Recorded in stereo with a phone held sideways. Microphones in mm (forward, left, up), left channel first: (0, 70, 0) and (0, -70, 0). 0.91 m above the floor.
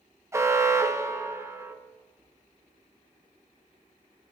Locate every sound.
0.3 s an alarm: 20° right (ahead or behind), 0.7 m